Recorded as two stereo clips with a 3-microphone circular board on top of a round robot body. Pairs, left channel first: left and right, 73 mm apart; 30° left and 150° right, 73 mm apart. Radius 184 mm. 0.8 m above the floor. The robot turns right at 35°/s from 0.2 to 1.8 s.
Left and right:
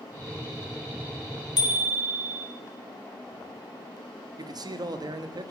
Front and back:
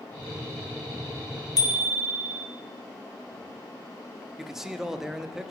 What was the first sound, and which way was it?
A bicycle bell, 60° left.